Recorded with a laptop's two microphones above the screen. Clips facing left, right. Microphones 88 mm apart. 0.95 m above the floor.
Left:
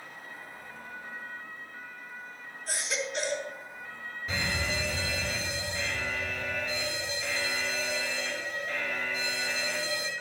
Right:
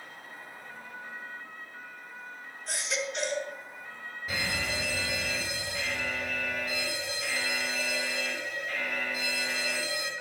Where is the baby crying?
5° left (ahead or behind), 5 m.